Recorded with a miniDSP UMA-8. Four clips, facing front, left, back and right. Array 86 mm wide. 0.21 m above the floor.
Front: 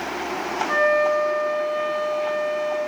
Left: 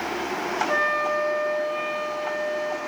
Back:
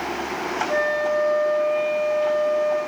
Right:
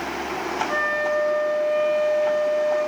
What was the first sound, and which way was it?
A flute, 10° left.